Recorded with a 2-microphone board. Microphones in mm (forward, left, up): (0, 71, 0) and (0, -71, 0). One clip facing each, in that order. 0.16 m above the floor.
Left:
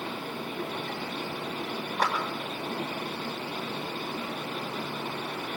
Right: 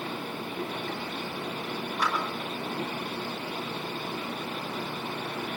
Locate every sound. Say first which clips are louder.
2.0 s a clap: left 2 dB; 70° left (ahead or behind), 6.5 m